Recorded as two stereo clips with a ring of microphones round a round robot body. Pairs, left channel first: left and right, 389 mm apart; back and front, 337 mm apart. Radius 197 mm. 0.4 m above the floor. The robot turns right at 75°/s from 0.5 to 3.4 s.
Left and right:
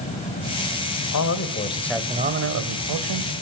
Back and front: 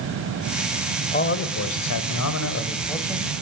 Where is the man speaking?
120° left, 2 m; by 3.3 s 75° right, 2 m.